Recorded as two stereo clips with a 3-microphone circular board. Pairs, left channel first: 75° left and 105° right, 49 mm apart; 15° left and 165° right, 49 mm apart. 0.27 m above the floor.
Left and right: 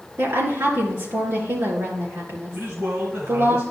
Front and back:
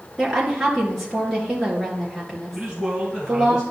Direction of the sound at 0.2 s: 80° right.